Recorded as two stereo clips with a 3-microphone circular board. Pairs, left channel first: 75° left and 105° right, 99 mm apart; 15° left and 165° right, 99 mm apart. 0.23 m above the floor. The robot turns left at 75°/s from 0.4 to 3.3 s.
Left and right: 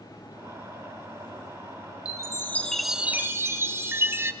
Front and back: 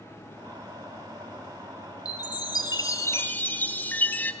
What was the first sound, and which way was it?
A chime, 45° left.